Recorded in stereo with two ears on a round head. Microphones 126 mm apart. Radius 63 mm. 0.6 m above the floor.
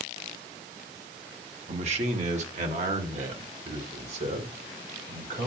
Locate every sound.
1.7 s a man speaking: 50° right (ahead or behind), 1.3 m; by 5.5 s 55° right (ahead or behind), 3.5 m